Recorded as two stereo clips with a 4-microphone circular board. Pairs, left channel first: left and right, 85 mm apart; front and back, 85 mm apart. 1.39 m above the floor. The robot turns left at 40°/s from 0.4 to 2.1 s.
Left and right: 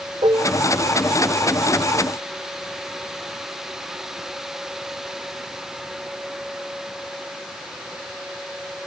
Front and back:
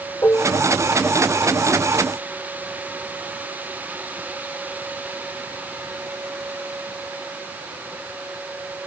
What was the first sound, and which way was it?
Dishes clattering, 60° right.